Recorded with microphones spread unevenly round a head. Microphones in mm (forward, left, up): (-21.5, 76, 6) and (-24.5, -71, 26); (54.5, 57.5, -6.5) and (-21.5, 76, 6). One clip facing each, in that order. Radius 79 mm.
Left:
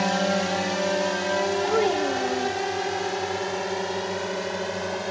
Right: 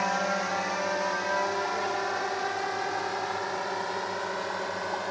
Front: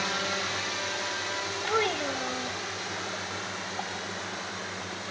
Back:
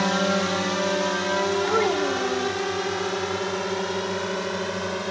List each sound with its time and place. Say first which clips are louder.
0.0 s a drone: left 5 dB, back 9 dB; 140° left; by 5.1 s 150° left
1.7 s a child speaking: left 8 dB, back 6 dB; 100° left